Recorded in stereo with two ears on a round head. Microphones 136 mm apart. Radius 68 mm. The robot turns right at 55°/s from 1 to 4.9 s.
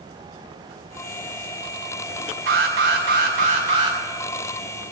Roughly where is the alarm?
Right.